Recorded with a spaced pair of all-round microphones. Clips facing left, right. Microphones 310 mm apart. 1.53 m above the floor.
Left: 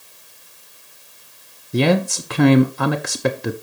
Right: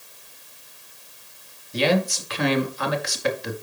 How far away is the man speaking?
About 0.8 m.